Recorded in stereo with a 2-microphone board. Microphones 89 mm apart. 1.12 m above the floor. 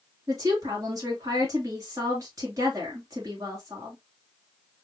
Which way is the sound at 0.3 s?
40° right (ahead or behind).